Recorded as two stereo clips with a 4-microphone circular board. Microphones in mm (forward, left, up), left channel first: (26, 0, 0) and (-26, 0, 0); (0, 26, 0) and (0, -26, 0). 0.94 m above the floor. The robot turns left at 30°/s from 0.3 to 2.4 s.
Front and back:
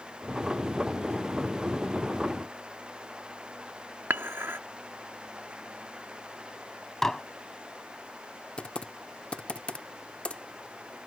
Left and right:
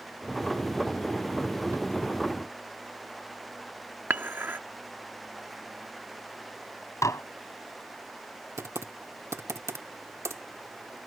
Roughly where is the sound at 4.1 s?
Behind right.